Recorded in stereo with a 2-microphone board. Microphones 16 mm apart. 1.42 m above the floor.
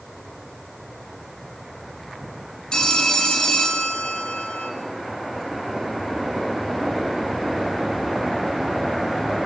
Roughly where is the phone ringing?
Left.